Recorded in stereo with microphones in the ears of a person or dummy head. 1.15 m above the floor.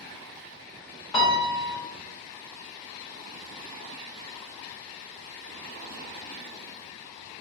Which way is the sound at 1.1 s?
20° left (ahead or behind).